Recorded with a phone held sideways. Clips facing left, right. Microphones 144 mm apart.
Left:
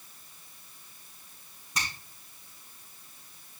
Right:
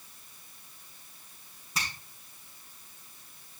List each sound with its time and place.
1.8 s a finger snap: centre (ahead or behind), 7 m